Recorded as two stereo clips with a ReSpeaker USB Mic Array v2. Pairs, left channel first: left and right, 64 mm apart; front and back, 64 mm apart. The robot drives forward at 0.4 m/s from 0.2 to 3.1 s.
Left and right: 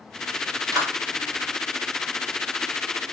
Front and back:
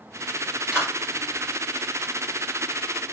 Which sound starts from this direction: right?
A clap, at 0.7 s.